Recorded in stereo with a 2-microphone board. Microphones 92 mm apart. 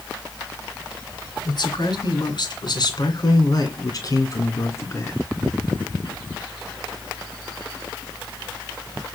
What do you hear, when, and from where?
1.4 s a man speaking: 60° left (ahead or behind), 3 m; by 5.3 s 30° left (ahead or behind), 3 m